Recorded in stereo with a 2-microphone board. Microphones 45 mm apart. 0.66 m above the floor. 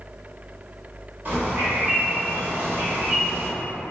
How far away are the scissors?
No scissors in this recording.